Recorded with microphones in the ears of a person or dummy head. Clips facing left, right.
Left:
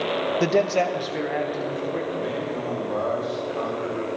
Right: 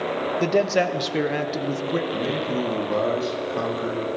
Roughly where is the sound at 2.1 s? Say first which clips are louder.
Right 2 dB; right.